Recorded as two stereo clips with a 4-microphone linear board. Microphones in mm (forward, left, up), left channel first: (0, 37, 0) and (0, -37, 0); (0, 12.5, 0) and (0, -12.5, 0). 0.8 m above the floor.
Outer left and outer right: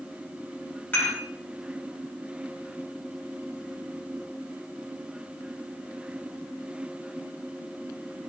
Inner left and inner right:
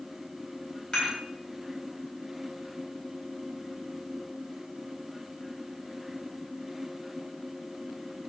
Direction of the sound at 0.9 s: 25° left (ahead or behind).